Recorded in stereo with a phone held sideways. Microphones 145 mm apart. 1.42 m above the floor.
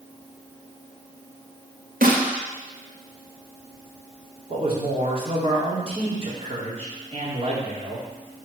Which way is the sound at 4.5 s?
45° right (ahead or behind).